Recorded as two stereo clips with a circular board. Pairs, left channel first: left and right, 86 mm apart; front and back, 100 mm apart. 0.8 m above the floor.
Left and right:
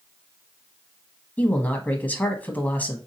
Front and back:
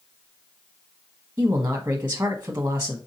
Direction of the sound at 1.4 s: 140° left.